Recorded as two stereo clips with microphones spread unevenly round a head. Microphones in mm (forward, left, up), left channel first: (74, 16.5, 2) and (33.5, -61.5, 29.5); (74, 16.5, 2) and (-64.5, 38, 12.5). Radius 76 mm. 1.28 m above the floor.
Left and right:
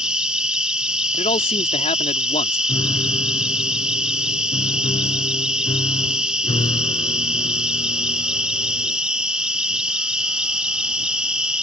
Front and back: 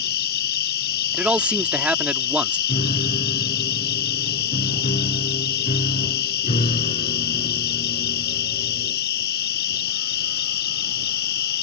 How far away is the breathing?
No breathing in this recording.